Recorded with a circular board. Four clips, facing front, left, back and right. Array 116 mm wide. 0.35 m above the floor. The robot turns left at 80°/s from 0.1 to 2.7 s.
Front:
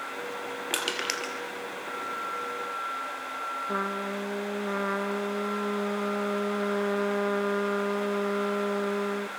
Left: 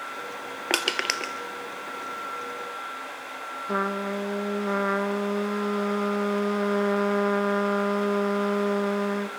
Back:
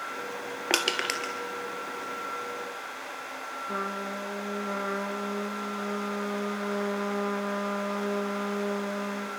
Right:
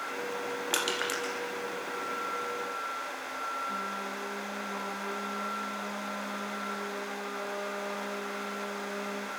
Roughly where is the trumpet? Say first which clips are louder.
Left 9 dB, front 1 dB; left.